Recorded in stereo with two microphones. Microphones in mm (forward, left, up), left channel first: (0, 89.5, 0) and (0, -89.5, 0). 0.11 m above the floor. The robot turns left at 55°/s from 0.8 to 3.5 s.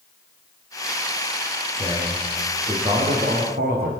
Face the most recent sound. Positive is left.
turn(degrees=-65)